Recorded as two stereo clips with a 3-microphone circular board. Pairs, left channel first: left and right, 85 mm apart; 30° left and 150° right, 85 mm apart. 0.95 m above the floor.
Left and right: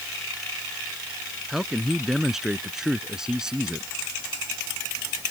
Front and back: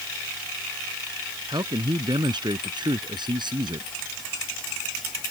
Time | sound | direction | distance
1.5 | a man speaking | straight behind | ?